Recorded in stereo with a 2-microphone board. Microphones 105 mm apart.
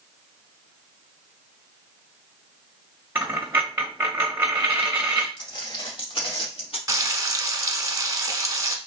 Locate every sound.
3.1 s a dropped coin: 20° right (ahead or behind), 1.1 m
5.4 s footsteps: 45° left (ahead or behind), 2 m; by 6.8 s 65° left (ahead or behind), 1.6 m
6.9 s frying: 35° right (ahead or behind), 0.6 m